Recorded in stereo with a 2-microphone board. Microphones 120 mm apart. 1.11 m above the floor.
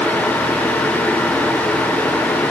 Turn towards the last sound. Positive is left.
No sound to turn to.